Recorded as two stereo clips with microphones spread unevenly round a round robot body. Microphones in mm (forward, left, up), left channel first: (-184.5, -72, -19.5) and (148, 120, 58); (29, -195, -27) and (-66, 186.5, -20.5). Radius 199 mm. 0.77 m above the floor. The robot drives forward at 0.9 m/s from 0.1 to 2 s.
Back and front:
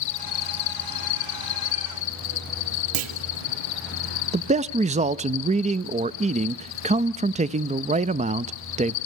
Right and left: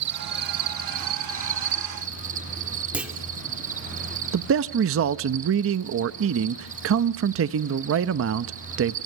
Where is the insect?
160° left, 0.8 m; by 9.1 s 175° left, 2.5 m.